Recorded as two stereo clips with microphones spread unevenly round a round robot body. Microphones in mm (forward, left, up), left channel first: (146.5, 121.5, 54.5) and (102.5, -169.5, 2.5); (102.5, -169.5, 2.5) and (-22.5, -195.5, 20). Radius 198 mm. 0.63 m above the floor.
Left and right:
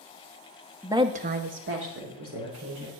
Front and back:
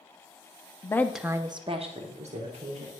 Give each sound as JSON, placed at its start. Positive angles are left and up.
{"t": 0.8, "sound": "a woman speaking", "azimuth_deg": -30, "distance_m": 0.7}